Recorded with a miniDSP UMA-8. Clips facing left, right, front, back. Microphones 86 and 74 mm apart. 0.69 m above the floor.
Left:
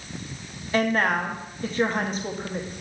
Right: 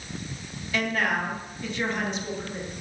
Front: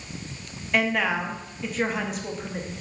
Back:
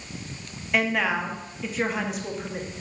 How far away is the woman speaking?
About 0.8 m.